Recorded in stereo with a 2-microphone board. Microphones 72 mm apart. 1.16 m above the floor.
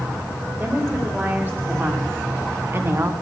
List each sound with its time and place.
0.6 s a woman speaking: 25° right (ahead or behind), 4 m; by 3.1 s 40° right (ahead or behind), 1.3 m